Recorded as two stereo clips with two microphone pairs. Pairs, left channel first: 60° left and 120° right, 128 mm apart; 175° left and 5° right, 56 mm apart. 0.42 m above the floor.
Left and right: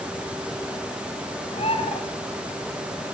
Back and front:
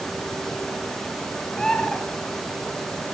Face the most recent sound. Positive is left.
turn(degrees=100)